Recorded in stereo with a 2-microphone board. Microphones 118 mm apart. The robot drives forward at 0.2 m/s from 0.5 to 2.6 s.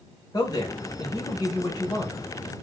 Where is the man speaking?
35° left (ahead or behind), 0.9 m; by 2.2 s 30° left (ahead or behind), 1.0 m.